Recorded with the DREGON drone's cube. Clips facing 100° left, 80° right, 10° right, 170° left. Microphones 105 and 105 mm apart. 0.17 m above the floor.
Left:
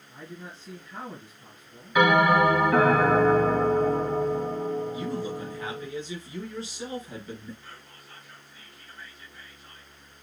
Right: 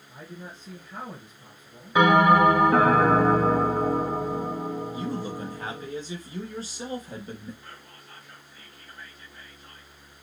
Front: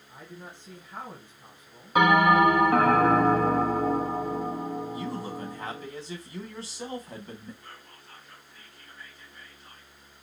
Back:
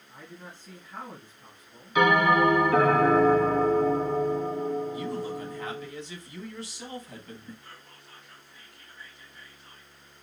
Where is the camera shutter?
I don't hear a camera shutter.